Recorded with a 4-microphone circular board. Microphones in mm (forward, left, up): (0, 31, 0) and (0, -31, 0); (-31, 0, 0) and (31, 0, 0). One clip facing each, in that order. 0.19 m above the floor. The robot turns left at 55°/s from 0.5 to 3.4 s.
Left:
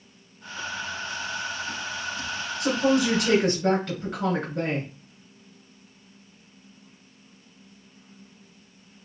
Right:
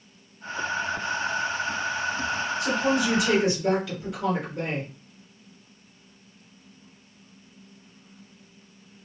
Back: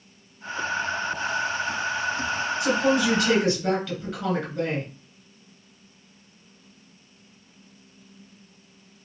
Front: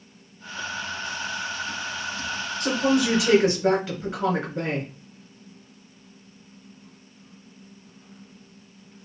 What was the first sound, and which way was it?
A woman speaking, 105° left.